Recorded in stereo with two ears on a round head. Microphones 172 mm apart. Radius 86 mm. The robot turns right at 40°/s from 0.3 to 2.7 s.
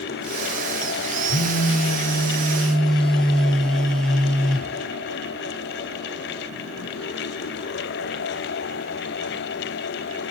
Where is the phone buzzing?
120° left, 1.1 m; by 4.8 s 175° left, 1.1 m.